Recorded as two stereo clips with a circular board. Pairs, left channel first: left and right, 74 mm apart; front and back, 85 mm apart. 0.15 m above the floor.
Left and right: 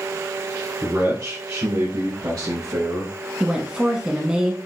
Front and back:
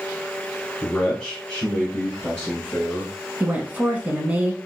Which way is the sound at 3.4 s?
145° right.